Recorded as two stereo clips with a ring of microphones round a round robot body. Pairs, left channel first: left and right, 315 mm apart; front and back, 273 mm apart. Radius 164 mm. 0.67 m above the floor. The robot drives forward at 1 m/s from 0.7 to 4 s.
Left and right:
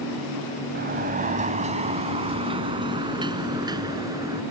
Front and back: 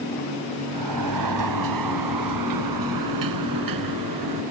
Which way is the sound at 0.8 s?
150° right.